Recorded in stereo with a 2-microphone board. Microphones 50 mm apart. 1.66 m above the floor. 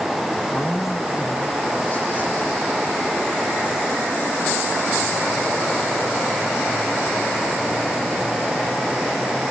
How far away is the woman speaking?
About 1.1 m.